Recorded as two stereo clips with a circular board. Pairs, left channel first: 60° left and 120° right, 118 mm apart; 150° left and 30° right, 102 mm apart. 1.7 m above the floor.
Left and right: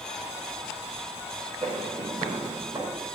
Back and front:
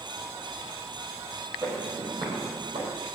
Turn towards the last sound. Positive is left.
turn(degrees=-65)